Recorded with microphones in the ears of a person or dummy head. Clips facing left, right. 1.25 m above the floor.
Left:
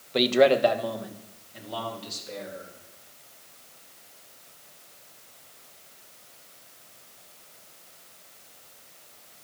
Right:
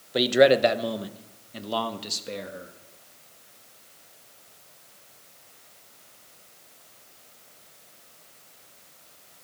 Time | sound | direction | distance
0.1 | a man speaking | 5° right (ahead or behind) | 0.9 m